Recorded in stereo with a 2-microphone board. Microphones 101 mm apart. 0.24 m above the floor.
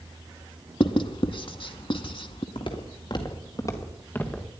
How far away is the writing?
About 0.9 m.